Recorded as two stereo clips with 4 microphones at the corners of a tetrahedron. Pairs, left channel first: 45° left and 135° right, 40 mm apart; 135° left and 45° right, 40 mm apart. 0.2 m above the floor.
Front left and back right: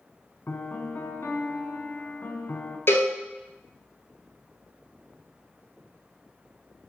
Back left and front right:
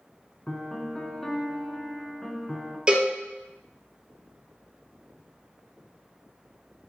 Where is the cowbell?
25° left, 1.0 m.